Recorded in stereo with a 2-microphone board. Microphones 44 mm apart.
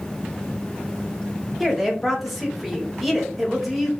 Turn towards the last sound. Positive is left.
turn(degrees=0)  # may be behind; listen again after turning